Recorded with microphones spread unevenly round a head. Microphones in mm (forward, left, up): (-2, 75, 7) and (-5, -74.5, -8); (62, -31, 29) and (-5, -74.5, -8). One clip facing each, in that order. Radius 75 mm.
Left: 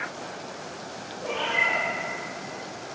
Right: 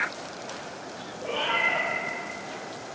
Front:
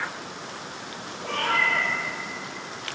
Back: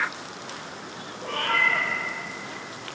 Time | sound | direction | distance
1.2 | a cat meowing | 80° right | 0.9 m